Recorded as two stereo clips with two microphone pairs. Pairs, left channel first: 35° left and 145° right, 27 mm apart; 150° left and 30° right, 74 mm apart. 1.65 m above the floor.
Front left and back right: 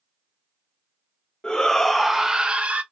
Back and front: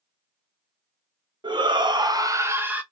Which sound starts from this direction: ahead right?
A shout, at 1.4 s.